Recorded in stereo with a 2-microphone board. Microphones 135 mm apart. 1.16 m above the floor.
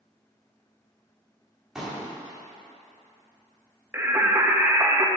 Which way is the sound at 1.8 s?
5° right (ahead or behind).